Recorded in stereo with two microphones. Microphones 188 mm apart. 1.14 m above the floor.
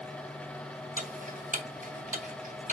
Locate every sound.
1.0 s ticking: 45° right (ahead or behind), 1.0 m